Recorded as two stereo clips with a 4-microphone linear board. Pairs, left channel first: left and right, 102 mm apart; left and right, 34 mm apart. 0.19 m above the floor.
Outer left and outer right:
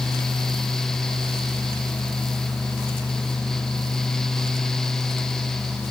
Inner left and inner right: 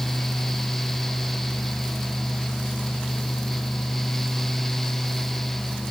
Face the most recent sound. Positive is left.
No sound to turn to.